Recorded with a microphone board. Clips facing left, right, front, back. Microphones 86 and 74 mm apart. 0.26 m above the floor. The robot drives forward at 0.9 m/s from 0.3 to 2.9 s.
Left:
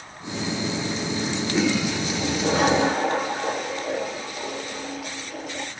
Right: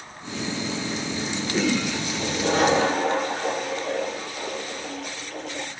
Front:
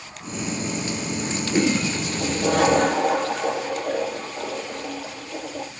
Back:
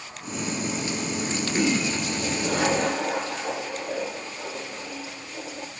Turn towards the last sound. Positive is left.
turn(degrees=5)